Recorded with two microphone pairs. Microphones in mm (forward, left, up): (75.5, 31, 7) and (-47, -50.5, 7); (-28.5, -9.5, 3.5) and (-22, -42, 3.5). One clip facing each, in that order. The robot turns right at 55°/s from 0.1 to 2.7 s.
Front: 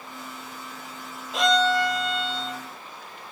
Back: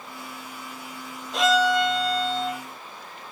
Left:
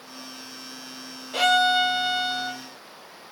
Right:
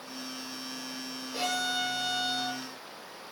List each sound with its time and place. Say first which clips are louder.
1.3 s a violin: back 1 dB, left 12 dB; 120° left, 1.0 m; by 2.6 s 170° right, 1.0 m